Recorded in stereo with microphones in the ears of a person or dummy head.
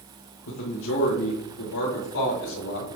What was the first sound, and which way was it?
A man speaking, 65° left (ahead or behind).